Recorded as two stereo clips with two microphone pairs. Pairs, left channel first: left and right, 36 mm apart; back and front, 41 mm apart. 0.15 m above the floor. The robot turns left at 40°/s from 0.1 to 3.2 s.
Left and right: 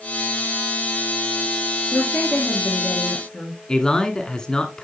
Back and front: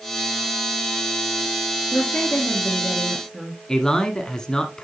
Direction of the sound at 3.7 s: 125° left.